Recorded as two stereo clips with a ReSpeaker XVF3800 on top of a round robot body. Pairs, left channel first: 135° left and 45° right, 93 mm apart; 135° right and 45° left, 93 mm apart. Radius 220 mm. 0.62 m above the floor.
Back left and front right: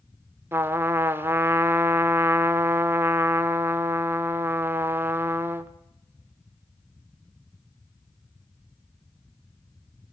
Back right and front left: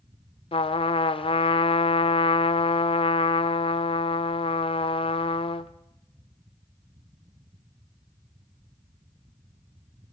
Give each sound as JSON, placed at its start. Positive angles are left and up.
{"t": 0.5, "sound": "a trumpet", "azimuth_deg": -110, "distance_m": 0.7}